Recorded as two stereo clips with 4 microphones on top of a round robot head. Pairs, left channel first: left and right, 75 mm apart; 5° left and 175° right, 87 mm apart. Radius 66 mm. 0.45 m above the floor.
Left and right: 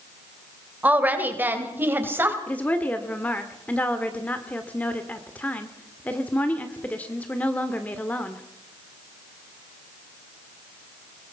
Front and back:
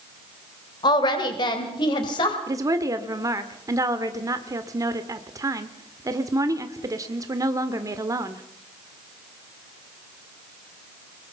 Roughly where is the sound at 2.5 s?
Behind left.